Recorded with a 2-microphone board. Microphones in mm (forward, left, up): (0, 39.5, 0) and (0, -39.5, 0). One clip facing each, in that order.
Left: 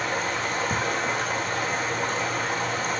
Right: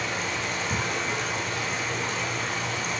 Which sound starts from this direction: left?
Running water, at 0.0 s.